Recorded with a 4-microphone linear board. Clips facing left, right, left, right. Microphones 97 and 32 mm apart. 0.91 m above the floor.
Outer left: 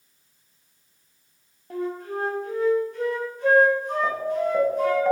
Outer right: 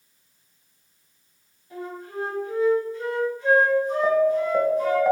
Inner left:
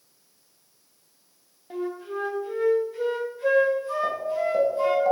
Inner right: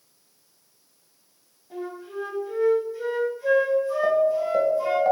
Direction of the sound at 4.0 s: 5° right (ahead or behind).